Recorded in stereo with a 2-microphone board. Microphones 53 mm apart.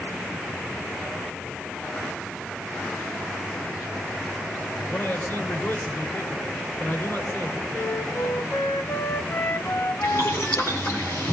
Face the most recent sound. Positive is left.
turn(degrees=60)  # may be behind; listen again after turning